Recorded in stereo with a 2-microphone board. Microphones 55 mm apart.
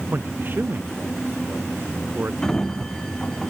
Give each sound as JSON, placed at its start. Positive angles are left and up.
{"t": 0.1, "sound": "a man speaking", "side_deg": -40}
{"t": 2.4, "sound": "a sliding door", "side_deg": 10}